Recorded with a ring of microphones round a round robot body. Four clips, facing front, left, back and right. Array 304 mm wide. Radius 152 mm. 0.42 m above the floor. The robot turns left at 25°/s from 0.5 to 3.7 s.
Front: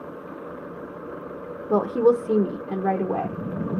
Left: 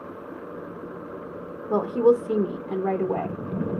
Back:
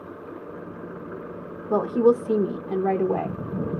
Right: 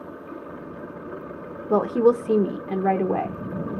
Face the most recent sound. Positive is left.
turn(degrees=-130)